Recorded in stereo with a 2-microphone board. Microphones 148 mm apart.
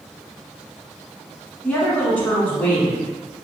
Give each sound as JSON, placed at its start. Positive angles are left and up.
{"t": 1.6, "sound": "a woman speaking", "side_deg": 10, "distance_m": 1.0}